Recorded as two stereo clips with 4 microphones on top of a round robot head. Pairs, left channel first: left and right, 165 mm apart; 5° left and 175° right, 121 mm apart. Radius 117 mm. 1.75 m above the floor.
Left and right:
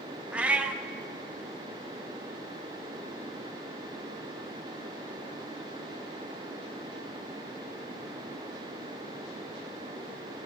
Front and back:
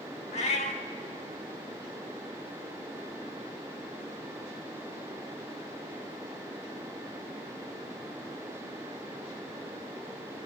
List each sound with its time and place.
0.3 s a cat meowing: 10° right, 1.3 m